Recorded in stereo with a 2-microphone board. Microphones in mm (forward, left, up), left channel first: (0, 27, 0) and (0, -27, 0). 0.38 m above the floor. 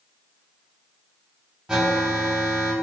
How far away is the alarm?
About 1.5 m.